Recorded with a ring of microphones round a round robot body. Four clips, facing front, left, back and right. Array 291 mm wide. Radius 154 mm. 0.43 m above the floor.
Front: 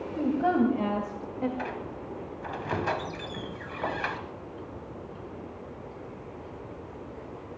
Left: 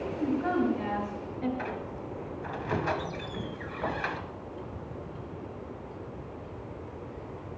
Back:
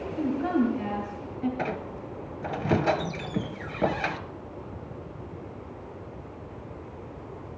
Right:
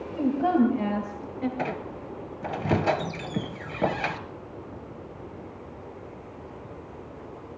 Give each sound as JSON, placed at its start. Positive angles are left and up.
{"t": 0.1, "sound": "a woman speaking", "azimuth_deg": -55, "distance_m": 2.5}
{"t": 1.6, "sound": "a squeak", "azimuth_deg": -130, "distance_m": 1.1}